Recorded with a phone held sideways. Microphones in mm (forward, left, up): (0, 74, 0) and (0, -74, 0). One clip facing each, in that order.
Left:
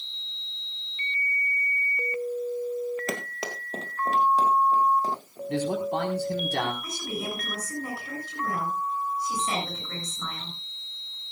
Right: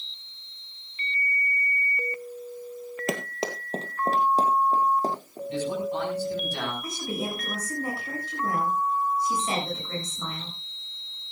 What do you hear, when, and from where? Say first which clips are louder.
3.1 s running footsteps: right 4 dB; 15° right (ahead or behind), 1.8 m; by 5.4 s 40° right (ahead or behind), 4.5 m
5.5 s a man speaking: left 2 dB; 65° left (ahead or behind), 4.5 m
6.8 s a woman speaking: right 2 dB; 25° right (ahead or behind), 7.5 m